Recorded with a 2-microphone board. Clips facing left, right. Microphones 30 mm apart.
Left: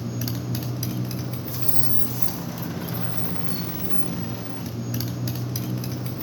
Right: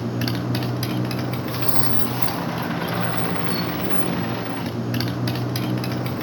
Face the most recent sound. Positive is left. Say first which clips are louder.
# right 6 dB
turn(degrees=-35)  # may be behind; listen again after turning